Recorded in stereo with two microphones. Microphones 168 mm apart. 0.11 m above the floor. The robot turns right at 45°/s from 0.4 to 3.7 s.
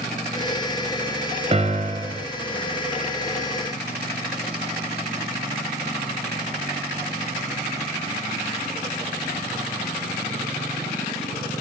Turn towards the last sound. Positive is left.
turn(degrees=-25)